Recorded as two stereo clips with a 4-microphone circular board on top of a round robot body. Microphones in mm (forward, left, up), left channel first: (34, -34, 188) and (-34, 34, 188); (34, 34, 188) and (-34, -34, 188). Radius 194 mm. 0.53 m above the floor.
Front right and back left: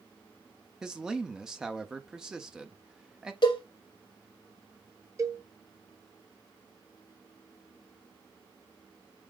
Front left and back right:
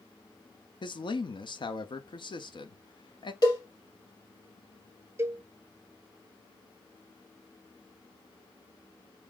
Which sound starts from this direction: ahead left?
A man speaking, at 0.8 s.